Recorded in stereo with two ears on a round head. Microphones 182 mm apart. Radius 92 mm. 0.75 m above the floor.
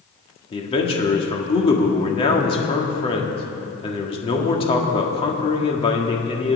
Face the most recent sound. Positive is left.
turn(degrees=30)  # may be behind; listen again after turning